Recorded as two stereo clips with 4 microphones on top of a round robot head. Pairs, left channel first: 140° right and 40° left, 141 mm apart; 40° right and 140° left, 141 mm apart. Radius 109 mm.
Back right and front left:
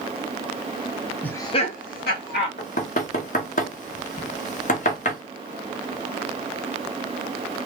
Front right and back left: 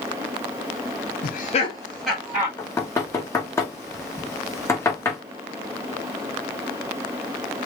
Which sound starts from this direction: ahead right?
Laughter, at 1.2 s.